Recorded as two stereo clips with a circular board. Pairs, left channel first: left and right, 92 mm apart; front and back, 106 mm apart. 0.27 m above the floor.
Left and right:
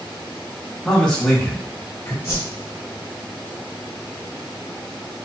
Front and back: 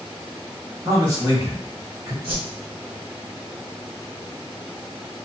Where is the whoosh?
125° left, 1.8 m.